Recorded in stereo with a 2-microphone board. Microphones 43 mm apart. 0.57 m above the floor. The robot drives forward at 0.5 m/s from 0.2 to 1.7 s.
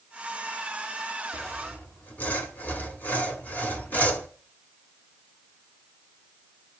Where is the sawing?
45° left (ahead or behind), 1.9 m; by 4.3 s 40° left (ahead or behind), 2.0 m.